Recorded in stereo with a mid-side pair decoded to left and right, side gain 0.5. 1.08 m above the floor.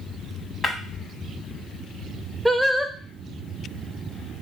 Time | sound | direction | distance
0.6 | breaking glass | 35° left | 1.1 m
2.5 | singing | straight ahead | 0.6 m